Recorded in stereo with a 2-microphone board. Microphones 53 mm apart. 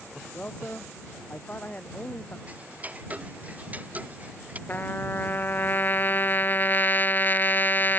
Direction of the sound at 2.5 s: 30° right (ahead or behind).